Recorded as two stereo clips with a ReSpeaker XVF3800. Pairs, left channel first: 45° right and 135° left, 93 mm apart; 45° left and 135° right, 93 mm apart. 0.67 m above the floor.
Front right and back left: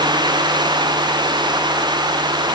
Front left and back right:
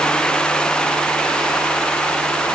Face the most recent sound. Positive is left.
No sound to turn to.